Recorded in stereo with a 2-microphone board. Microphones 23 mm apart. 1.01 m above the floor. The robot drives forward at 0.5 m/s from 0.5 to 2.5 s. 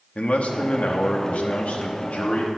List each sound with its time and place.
0.1 s a man speaking: 70° left (ahead or behind), 1.3 m; by 2.5 s 65° left (ahead or behind), 1.4 m